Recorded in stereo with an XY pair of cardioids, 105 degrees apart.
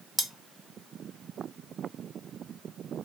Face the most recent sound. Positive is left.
turn(degrees=0)